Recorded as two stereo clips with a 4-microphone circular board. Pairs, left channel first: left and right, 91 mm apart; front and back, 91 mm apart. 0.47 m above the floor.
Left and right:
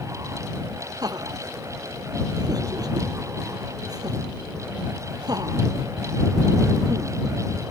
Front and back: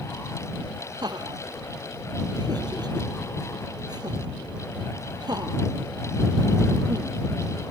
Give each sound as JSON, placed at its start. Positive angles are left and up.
{"t": 1.0, "sound": "laughter", "azimuth_deg": -135}